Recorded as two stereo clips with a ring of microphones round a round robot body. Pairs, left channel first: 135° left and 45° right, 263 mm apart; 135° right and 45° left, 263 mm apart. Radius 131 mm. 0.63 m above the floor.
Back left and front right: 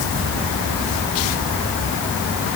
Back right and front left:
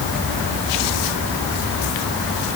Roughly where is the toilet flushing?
No toilet flushing in this recording.